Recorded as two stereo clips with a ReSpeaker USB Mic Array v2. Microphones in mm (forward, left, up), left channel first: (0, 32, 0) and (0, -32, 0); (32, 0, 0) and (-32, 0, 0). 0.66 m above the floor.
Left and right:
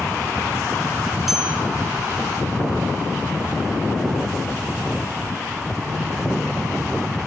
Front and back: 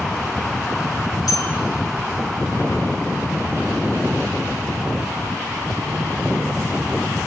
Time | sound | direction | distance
1.3 | a bell | 5° right | 7 m